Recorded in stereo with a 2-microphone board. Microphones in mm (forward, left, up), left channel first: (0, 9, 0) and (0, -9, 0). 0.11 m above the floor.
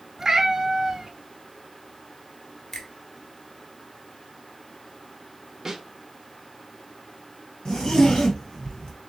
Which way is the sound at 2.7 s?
30° left (ahead or behind).